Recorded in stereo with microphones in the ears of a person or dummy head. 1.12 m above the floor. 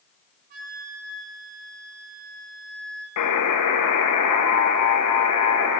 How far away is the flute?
About 1.6 m.